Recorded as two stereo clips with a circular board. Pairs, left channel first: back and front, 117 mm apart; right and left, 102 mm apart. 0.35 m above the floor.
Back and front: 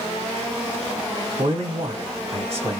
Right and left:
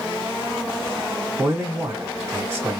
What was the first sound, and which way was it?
A man speaking, 25° left.